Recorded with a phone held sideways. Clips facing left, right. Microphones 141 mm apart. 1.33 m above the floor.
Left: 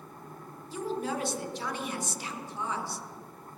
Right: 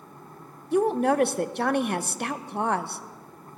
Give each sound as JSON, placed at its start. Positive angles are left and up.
{"t": 0.7, "sound": "a woman speaking", "side_deg": -65, "distance_m": 0.6}